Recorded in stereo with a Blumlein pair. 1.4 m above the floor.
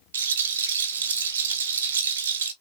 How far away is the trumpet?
No trumpet in this recording.